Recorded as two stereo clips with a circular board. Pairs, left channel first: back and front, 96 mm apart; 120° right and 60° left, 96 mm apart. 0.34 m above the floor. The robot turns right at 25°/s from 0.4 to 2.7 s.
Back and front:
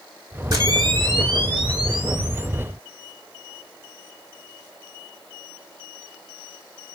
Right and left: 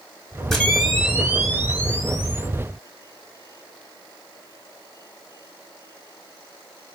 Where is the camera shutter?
30° right, 1.0 m; by 2.5 s 15° left, 1.0 m.